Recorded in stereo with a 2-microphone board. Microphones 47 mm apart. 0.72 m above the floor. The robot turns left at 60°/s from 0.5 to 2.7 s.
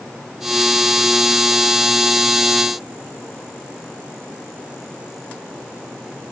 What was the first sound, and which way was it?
Only background noise.